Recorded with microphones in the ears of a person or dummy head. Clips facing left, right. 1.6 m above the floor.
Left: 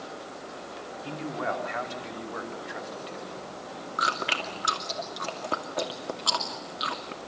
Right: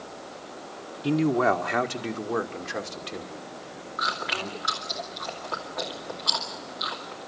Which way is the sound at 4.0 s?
45° left (ahead or behind).